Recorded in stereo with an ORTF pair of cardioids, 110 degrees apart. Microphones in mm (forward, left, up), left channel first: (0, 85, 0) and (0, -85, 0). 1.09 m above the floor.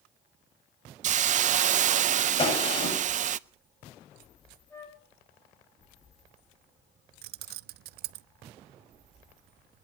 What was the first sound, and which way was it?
A hiss, 45° right.